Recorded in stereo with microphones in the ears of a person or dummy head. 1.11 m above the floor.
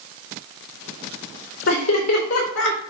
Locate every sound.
1.7 s laughter: 80° left, 4 m; by 2.8 s 85° left, 4.5 m